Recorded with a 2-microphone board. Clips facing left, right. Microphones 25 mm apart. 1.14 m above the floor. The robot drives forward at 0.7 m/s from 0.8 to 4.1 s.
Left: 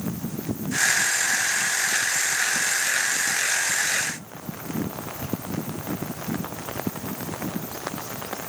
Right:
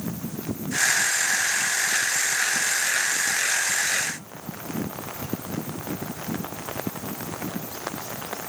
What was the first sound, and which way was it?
Only background noise.